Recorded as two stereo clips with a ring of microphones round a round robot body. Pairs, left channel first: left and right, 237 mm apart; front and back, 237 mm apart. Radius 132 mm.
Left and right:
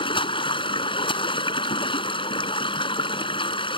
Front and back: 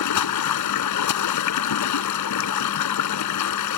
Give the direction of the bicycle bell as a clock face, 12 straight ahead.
No bicycle bell in this recording.